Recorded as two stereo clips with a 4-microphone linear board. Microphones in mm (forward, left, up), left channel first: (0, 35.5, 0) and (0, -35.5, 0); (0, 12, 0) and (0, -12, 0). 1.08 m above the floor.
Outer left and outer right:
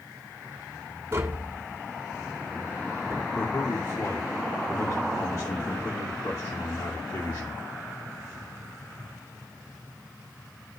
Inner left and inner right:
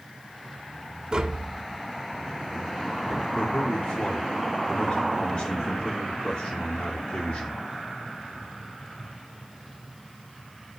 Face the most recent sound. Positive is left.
turn(degrees=50)  # may be behind; listen again after turning